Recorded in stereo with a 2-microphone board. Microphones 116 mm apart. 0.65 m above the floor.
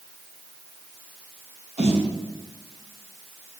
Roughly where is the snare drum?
Right.